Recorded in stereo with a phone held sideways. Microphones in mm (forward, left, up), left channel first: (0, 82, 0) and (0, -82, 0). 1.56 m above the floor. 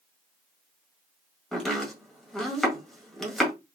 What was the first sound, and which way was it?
Chopping, centre (ahead or behind).